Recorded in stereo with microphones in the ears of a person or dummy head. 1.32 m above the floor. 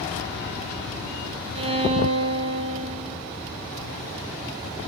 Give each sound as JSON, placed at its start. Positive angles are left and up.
{"t": 1.6, "sound": "a violin", "side_deg": -25, "distance_m": 0.5}